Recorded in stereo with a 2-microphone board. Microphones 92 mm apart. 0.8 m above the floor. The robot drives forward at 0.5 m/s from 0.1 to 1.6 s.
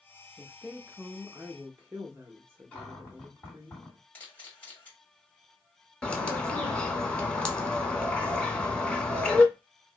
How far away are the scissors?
I don't hear scissors.